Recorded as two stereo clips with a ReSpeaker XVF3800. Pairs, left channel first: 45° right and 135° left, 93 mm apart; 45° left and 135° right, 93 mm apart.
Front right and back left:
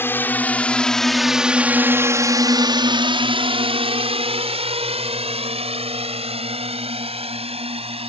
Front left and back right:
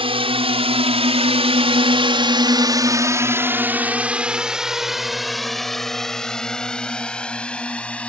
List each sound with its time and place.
0.0 s a drone: 110° right; by 8.1 s 125° left